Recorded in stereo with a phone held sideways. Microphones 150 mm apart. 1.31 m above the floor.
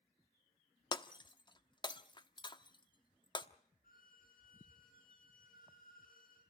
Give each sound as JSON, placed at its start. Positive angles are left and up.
{"t": 0.9, "sound": "breaking glass", "side_deg": 30, "distance_m": 1.0}
{"t": 3.8, "sound": "a violin", "side_deg": 65, "distance_m": 9.5}